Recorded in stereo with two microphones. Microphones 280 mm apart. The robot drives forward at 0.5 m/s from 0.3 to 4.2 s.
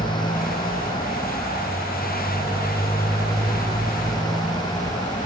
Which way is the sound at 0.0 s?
15° left (ahead or behind).